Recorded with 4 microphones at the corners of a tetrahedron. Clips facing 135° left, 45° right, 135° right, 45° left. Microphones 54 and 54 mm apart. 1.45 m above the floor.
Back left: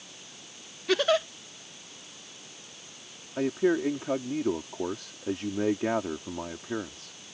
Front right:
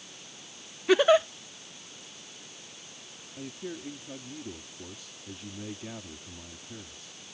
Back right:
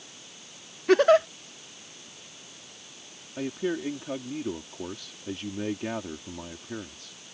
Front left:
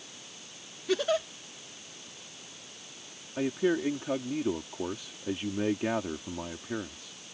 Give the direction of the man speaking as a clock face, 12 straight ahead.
8 o'clock.